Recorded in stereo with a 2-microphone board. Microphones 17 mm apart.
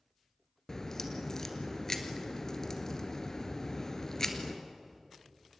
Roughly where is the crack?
Left.